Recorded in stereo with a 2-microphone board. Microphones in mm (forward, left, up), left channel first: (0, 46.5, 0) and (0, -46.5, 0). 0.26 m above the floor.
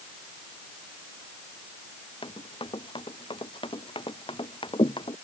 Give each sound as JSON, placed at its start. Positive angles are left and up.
{"t": 2.2, "sound": "running footsteps", "side_deg": 65}